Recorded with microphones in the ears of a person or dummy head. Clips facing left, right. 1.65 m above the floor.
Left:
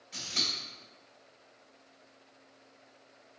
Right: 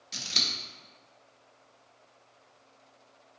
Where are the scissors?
55° right (ahead or behind), 0.9 m.